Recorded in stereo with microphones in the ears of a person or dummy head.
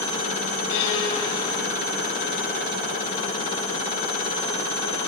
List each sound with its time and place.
0.7 s a violin: 65° left (ahead or behind), 6.5 m